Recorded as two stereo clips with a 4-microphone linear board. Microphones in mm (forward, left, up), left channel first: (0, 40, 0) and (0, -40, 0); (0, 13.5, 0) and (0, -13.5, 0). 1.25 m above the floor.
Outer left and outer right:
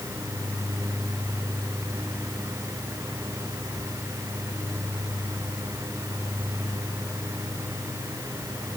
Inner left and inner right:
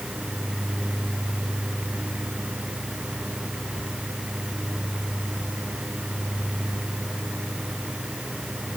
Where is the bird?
I don't hear a bird.